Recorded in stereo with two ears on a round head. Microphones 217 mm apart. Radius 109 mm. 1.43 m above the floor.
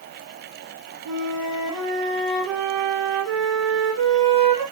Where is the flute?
Centre (ahead or behind), 1.1 m.